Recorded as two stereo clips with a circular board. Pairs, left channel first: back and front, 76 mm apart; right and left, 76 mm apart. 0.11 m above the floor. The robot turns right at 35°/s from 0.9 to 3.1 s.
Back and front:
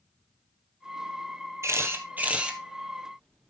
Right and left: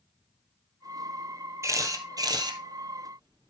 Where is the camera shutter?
45° left, 1.5 m; by 3.5 s 95° left, 1.5 m.